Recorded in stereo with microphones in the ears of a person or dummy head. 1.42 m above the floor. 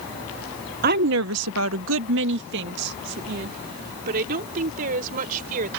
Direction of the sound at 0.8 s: 50° right (ahead or behind).